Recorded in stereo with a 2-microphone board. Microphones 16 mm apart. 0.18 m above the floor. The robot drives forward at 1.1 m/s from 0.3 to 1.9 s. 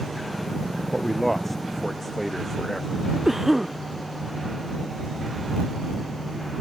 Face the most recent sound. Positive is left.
turn(degrees=-30)  # may be behind; listen again after turning